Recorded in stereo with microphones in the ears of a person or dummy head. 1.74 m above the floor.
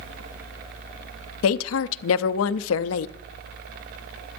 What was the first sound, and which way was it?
A woman speaking, 85° left.